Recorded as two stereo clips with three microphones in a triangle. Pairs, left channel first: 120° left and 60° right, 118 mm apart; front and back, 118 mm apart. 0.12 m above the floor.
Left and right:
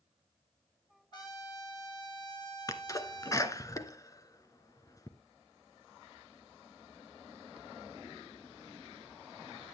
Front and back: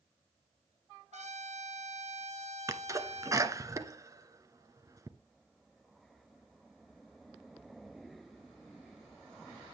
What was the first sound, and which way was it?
A trumpet, 170° left.